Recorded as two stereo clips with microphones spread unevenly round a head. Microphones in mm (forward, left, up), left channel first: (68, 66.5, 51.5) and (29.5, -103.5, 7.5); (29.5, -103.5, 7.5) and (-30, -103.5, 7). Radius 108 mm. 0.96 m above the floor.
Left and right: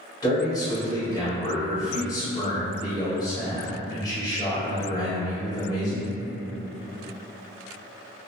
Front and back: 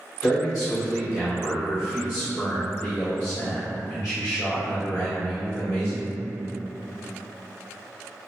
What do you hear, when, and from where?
0.2 s a man speaking: 5° left, 1.8 m